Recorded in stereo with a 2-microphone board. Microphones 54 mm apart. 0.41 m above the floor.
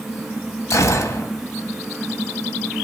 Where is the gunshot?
80° left, 1.0 m.